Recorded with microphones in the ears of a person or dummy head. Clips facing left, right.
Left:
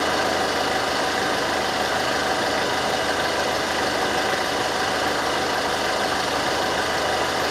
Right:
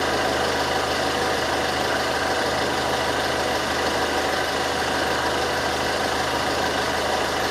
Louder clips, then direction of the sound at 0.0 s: Even; centre (ahead or behind).